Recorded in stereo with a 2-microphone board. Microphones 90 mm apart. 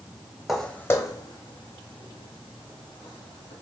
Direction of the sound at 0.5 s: 5° right (ahead or behind).